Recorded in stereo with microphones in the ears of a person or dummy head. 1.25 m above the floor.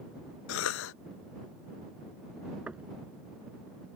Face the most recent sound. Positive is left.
turn(degrees=-5)  # may be behind; listen again after turning